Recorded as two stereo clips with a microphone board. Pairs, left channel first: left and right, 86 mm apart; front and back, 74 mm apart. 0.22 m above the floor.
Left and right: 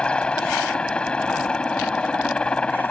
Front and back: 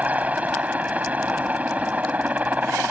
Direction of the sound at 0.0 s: 150° left.